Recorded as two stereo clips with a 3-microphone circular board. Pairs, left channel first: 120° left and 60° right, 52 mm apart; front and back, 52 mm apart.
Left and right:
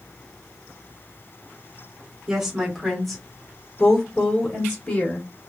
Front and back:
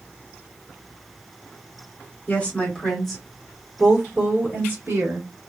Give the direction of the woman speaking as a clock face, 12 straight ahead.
12 o'clock.